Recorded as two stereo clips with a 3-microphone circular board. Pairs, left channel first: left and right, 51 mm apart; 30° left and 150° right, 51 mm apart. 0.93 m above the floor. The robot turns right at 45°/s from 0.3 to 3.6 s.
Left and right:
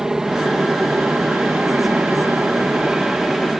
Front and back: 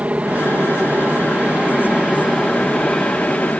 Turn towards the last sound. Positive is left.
turn(degrees=-10)